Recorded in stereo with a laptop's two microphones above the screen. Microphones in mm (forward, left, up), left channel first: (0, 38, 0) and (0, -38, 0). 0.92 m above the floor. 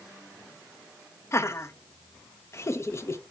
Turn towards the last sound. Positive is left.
turn(degrees=40)  # may be behind; listen again after turning